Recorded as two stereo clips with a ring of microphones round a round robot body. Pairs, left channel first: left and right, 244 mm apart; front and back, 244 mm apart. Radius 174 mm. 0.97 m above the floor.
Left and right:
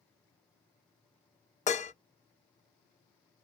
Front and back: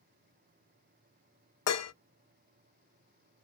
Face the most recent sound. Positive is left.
turn(degrees=25)